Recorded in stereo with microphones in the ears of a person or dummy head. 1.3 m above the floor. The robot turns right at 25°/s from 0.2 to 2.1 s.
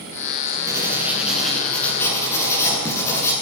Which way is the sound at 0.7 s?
20° right.